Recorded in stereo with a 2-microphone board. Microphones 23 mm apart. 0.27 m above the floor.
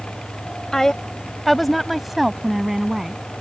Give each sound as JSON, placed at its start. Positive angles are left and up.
{"t": 0.7, "sound": "a woman speaking", "side_deg": 25}